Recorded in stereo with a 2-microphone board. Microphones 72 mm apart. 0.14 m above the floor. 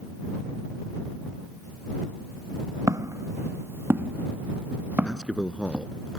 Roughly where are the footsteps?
Right.